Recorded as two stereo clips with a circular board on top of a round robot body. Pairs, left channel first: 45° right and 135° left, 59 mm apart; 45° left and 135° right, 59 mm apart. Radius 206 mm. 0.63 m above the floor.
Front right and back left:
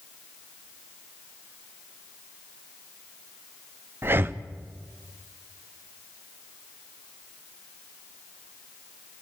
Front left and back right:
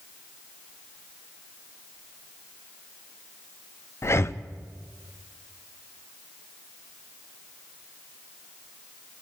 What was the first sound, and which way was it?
Breathing, 85° left.